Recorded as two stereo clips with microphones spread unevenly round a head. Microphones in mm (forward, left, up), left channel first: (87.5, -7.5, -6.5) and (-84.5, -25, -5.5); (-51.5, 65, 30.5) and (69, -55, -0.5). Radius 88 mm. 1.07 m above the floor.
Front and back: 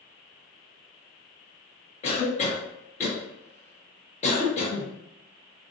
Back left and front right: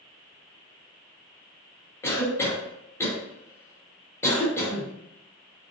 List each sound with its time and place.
2.0 s a cough: 55° left, 1.1 m